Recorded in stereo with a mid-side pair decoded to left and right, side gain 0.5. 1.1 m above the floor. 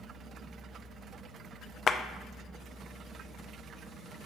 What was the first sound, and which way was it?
A clap, 45° left.